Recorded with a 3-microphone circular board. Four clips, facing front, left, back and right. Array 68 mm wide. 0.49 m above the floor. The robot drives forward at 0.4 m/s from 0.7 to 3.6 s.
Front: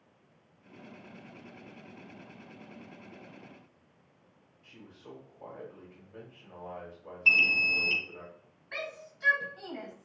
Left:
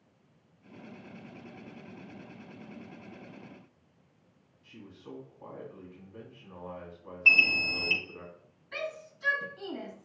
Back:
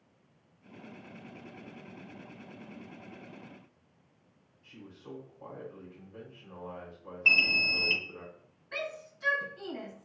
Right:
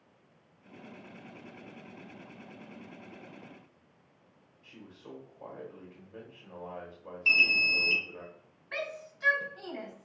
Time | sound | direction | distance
4.6 | a man speaking | 95° right | 2 m
7.2 | an alarm | 155° left | 1.3 m
8.7 | a shout | 85° right | 2.5 m